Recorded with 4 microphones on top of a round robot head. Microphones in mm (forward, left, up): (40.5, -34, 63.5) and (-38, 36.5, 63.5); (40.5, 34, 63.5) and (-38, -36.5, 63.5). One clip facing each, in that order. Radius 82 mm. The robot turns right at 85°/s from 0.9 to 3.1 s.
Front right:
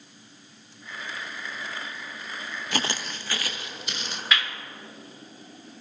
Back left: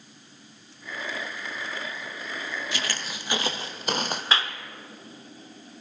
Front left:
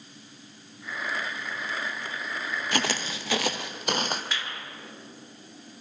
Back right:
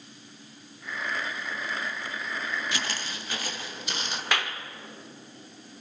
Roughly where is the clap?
Behind.